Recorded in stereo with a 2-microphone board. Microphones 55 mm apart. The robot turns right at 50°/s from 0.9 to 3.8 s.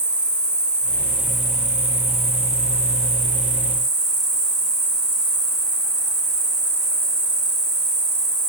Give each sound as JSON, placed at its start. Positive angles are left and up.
{"t": 0.0, "sound": "an insect", "azimuth_deg": 160, "distance_m": 4.0}